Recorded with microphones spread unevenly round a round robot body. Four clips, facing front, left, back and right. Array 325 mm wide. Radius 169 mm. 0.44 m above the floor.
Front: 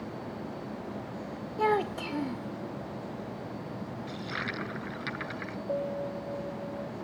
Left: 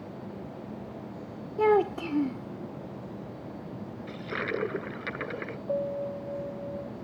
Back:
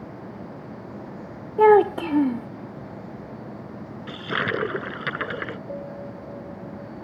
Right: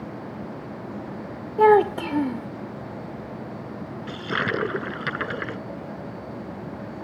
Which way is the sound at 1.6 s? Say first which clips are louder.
Right 7 dB, back 13 dB; 165° right.